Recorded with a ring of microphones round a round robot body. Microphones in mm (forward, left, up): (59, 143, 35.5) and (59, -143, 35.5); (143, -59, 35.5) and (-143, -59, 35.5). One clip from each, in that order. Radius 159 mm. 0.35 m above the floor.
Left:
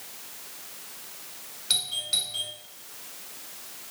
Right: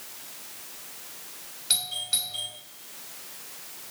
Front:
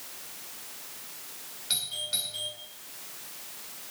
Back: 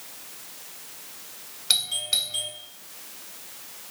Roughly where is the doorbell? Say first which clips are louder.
Left 2 dB, back 7 dB; behind.